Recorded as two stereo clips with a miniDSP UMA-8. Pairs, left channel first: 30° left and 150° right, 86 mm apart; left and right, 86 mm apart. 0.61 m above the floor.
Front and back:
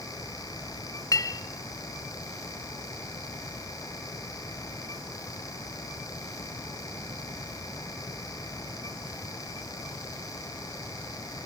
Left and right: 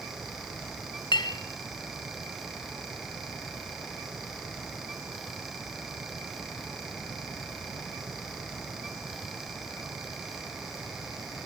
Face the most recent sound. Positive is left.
turn(degrees=75)